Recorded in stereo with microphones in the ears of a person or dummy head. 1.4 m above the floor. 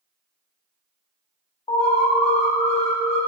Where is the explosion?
I don't hear an explosion.